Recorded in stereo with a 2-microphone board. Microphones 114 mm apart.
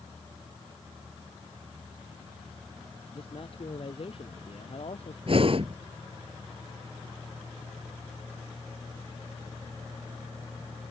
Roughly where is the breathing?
Right.